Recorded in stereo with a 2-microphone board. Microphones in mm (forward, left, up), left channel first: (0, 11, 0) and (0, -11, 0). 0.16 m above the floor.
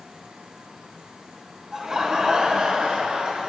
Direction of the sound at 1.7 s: 20° right (ahead or behind).